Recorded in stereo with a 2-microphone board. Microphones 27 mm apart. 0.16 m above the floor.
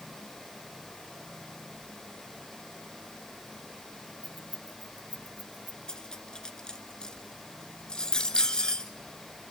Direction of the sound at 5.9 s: 30° left (ahead or behind).